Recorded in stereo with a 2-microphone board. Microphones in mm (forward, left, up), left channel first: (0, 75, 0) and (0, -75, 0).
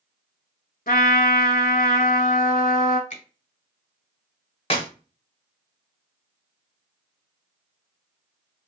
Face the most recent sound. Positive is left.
turn(degrees=40)  # may be behind; listen again after turning